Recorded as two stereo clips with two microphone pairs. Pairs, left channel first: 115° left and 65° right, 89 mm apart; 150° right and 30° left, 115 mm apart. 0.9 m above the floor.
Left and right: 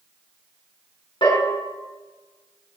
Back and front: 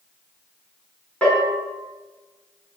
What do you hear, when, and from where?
1.2 s a bell: 130° left, 6.5 m